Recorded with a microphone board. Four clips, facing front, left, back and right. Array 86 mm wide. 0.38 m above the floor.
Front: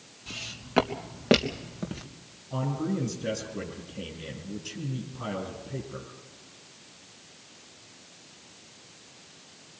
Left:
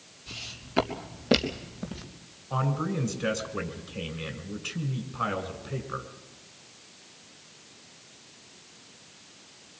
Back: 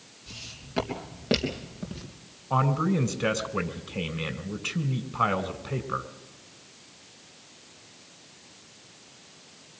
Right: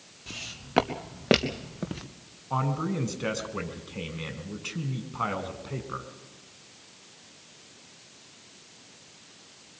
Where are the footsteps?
55° right, 3.5 m; by 2.0 s 70° right, 3 m.